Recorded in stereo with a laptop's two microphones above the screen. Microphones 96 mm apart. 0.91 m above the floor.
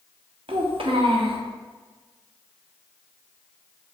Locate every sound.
0.5 s a child speaking: 70° right (ahead or behind), 0.6 m